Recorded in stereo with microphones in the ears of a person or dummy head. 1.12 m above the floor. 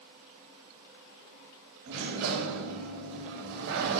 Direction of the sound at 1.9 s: 65° right (ahead or behind).